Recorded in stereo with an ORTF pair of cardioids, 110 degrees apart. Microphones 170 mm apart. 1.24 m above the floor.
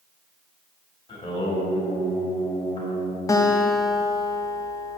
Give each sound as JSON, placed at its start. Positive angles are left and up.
{"t": 1.1, "sound": "singing", "azimuth_deg": 30, "distance_m": 3.0}
{"t": 3.3, "sound": "a guitar", "azimuth_deg": 20, "distance_m": 0.9}